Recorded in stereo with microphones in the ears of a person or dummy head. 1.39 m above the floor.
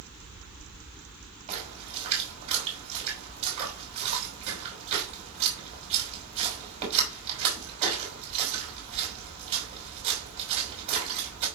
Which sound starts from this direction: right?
A splash, at 1.5 s.